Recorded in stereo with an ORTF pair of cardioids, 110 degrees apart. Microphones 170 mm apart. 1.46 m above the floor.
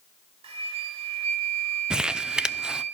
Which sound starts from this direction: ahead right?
A flute, at 0.4 s.